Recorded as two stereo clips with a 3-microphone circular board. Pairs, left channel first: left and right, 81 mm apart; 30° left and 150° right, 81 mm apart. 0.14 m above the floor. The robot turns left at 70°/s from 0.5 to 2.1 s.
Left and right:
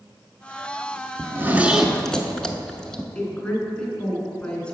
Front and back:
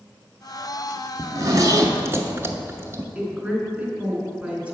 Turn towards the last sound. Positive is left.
turn(degrees=150)